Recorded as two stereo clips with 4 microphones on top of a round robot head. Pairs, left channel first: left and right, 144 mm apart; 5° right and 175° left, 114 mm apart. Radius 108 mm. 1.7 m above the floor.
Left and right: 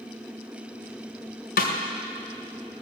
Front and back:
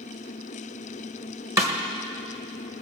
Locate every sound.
1.6 s a snare drum: 110° left, 1.9 m